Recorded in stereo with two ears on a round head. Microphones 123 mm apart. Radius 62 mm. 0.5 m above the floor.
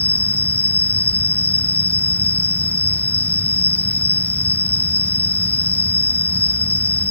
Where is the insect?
15° left (ahead or behind).